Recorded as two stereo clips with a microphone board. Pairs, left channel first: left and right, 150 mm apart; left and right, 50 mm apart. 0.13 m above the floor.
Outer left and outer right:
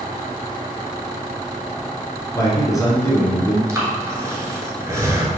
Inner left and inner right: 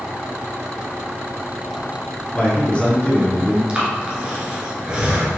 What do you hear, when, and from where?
2.4 s a man speaking: 25° left (ahead or behind), 1.3 m
3.7 s breathing: 20° right (ahead or behind), 1.2 m